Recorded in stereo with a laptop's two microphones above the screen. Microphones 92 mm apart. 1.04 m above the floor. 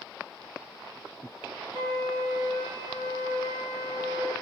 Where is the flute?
60° right (ahead or behind), 5.5 m.